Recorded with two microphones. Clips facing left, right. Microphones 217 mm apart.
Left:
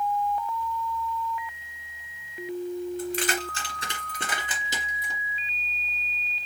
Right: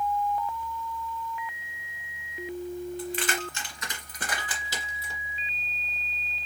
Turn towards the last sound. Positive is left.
turn(degrees=15)  # may be behind; listen again after turning